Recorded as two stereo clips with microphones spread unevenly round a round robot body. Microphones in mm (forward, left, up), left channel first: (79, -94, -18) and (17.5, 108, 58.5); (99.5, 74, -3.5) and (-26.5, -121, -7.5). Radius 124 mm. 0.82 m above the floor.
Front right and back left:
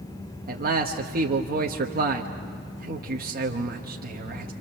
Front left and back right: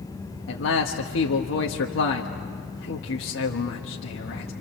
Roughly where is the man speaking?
Ahead left.